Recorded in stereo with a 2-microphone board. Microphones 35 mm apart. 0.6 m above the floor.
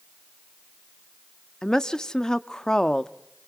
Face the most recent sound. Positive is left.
turn(degrees=20)  # may be behind; listen again after turning